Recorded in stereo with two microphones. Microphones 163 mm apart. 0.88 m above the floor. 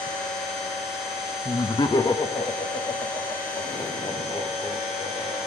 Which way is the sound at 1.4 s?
20° left (ahead or behind).